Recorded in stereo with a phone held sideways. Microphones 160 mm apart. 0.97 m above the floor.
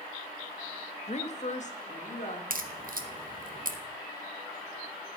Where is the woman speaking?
40° left (ahead or behind), 0.7 m; by 2.4 s 50° left (ahead or behind), 2 m.